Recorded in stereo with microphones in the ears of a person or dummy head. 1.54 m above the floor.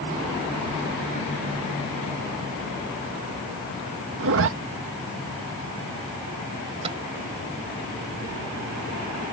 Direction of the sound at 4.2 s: 65° right (ahead or behind).